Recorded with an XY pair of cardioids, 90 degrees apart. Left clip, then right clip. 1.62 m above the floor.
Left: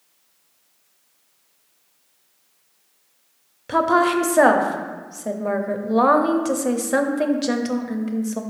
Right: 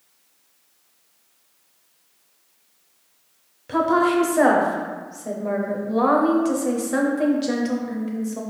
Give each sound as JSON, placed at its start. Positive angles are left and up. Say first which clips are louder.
{"t": 3.7, "sound": "a woman speaking", "louder": "left 1 dB", "azimuth_deg": 45, "distance_m": 0.5}